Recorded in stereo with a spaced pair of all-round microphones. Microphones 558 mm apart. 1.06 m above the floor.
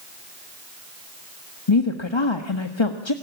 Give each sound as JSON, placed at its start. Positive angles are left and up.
{"t": 1.7, "sound": "a woman speaking", "side_deg": 50, "distance_m": 1.6}